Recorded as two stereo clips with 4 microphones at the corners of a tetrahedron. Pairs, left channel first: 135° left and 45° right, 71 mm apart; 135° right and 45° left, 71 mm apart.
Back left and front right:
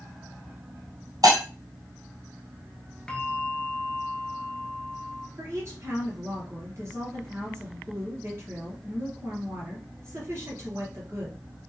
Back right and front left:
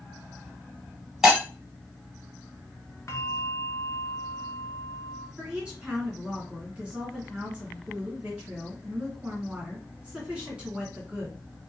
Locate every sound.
1.2 s breaking glass: 35° right, 1.9 m
3.1 s a bell: 155° right, 0.7 m
5.4 s a woman speaking: 25° right, 2 m